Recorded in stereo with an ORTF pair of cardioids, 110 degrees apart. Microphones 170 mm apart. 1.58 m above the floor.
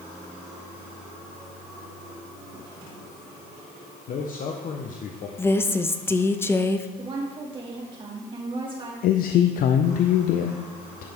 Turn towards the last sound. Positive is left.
turn(degrees=60)